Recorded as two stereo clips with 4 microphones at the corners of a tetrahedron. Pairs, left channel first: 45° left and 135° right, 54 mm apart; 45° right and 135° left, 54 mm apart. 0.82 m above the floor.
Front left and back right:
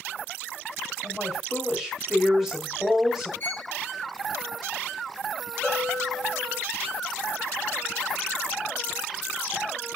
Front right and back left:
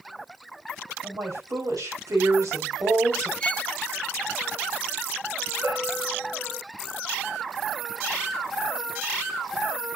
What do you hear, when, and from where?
1.0 s a woman speaking: 145° left, 5 m
3.4 s a violin: 15° left, 0.8 m
5.6 s a bell: 120° left, 7.5 m